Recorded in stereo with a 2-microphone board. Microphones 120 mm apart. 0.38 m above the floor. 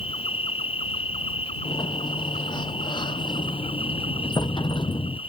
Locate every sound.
0.0 s an insect: 55° left (ahead or behind)
1.6 s a sliding door: 45° left (ahead or behind)